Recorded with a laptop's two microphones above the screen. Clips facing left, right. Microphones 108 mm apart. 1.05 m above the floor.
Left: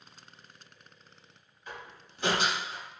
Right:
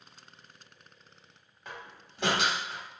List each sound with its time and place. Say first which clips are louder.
1.6 s a door slam: even; 85° right, 1.5 m